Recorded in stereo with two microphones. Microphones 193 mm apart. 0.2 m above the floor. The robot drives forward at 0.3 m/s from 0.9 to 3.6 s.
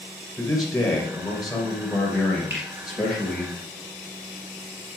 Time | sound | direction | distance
0.4 | a man speaking | centre (ahead or behind) | 2.5 m
2.5 | a finger snap | 70° right (ahead or behind) | 3.5 m